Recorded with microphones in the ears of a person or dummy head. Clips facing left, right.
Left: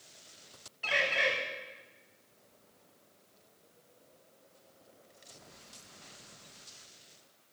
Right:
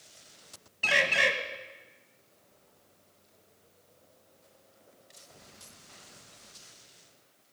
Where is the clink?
No clink in this recording.